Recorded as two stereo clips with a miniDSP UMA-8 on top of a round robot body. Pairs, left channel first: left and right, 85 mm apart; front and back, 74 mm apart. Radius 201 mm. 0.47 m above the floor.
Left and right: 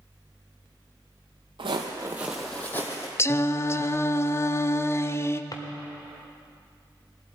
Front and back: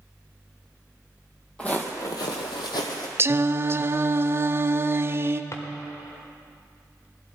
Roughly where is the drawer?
Ahead left.